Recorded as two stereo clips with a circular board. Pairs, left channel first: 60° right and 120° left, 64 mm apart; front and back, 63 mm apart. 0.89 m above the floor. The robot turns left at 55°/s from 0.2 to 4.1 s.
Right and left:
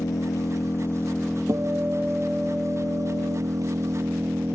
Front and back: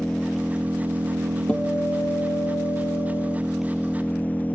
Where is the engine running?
80° right; by 4.5 s 65° left.